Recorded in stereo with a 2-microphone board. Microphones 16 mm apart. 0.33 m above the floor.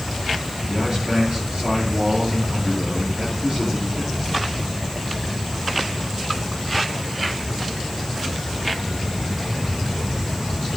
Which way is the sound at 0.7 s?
40° right (ahead or behind).